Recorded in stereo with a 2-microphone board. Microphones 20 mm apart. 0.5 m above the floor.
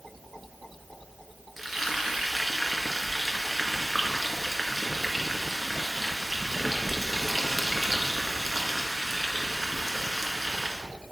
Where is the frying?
5° right (ahead or behind), 1.6 m.